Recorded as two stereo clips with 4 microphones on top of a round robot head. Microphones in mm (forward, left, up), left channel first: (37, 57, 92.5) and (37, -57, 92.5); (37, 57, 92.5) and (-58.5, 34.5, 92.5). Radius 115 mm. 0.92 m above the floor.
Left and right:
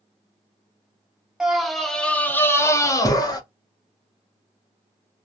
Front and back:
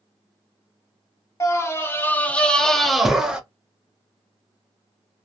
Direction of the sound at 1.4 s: 10° right.